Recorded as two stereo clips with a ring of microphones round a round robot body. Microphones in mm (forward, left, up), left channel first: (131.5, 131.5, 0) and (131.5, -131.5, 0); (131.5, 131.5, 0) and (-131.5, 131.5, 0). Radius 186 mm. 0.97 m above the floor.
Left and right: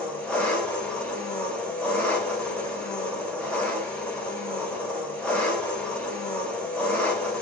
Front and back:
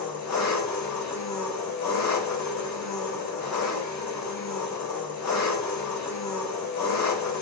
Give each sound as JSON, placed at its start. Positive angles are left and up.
{"t": 0.0, "sound": "an engine running", "azimuth_deg": 5, "distance_m": 4.0}